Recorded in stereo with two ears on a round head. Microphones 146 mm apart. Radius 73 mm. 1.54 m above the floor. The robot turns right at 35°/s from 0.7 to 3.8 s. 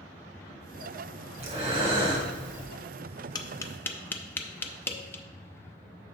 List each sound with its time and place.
1.4 s breathing: 70° right, 1.5 m; by 2.7 s 30° right, 1.5 m
3.4 s tapping: 25° left (ahead or behind), 0.6 m; by 5.2 s 15° left (ahead or behind), 0.6 m